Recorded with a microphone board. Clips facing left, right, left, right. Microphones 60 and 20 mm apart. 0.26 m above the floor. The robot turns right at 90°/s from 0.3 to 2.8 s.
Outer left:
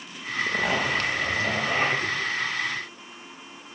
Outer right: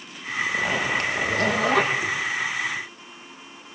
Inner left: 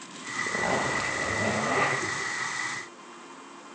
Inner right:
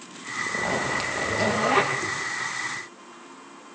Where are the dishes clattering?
I don't hear dishes clattering.